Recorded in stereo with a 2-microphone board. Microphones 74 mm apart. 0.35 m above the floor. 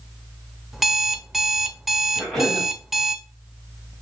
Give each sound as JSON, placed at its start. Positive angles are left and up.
{"t": 0.7, "sound": "an alarm clock", "side_deg": 0, "distance_m": 0.6}
{"t": 2.1, "sound": "a cough", "side_deg": 5, "distance_m": 2.5}